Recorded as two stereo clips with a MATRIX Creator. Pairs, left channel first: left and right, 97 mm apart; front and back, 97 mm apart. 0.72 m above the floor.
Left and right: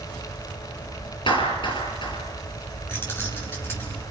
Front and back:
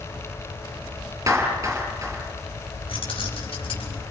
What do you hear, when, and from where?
1.3 s a clap: 125° left, 5.5 m
2.9 s keys jangling: 25° left, 6.5 m